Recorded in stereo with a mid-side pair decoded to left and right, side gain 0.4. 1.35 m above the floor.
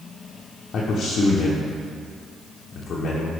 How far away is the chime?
No chime in this recording.